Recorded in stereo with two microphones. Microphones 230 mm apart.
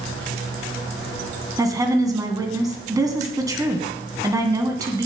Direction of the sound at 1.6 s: 15° right (ahead or behind).